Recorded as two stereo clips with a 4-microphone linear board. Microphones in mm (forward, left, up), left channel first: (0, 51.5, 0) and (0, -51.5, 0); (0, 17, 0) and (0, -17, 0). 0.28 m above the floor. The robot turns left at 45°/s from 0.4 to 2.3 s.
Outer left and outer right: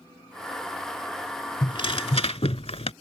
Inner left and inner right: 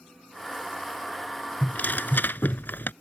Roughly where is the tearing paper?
Behind left.